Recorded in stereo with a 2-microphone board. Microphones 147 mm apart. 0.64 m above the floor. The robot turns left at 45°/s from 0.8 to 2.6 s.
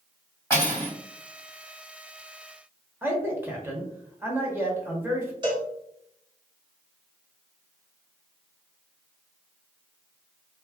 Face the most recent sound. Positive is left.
turn(degrees=-30)  # may be behind; listen again after turning